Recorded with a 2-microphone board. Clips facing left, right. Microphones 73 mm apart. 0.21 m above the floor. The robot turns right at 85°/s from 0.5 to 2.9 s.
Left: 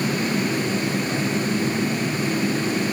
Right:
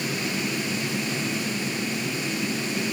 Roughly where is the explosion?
I don't hear an explosion.